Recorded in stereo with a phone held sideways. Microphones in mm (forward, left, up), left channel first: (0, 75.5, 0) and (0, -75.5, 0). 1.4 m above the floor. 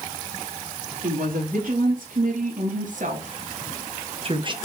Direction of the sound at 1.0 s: 70° right (ahead or behind).